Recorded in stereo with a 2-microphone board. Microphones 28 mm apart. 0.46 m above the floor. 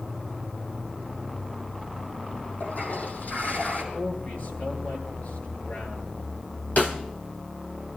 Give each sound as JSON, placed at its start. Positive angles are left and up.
{"t": 2.6, "sound": "a toilet flushing", "side_deg": 65, "distance_m": 4.0}
{"t": 3.9, "sound": "a man speaking", "side_deg": 75, "distance_m": 9.0}
{"t": 6.8, "sound": "a snare drum", "side_deg": 65, "distance_m": 3.0}